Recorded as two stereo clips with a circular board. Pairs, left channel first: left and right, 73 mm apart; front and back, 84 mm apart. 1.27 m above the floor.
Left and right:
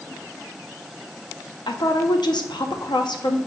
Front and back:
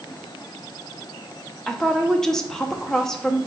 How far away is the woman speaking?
About 0.6 m.